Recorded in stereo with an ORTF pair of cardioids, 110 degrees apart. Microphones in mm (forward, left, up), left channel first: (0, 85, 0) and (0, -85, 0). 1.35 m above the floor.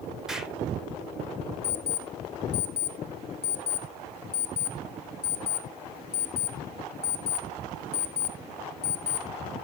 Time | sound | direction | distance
0.3 | an explosion | 5° right | 1.7 m
1.6 | an alarm clock | 35° left | 1.7 m